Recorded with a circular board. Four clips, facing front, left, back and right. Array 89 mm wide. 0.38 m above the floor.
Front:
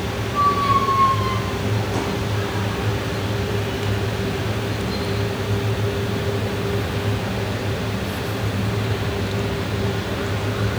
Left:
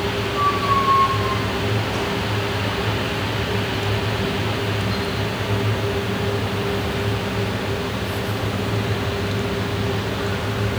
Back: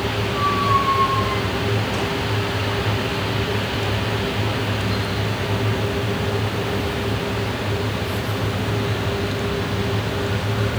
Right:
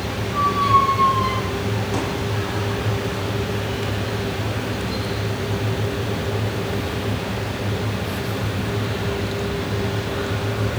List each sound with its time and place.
0.3 s a squeak: 75° right, 6.5 m